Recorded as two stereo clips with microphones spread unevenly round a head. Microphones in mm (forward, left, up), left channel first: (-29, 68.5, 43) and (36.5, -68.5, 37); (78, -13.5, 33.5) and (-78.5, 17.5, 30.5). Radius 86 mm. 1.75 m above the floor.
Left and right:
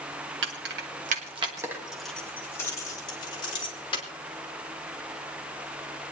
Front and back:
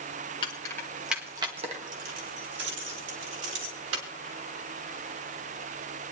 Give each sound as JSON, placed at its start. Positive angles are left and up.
{"t": 0.4, "sound": "keys jangling", "azimuth_deg": -75, "distance_m": 1.6}